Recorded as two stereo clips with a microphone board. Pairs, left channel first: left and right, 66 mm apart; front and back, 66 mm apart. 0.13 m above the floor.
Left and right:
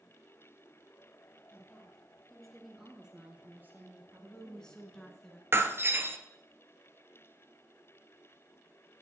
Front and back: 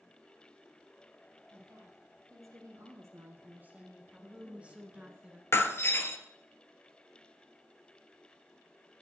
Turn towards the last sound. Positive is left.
turn(degrees=-45)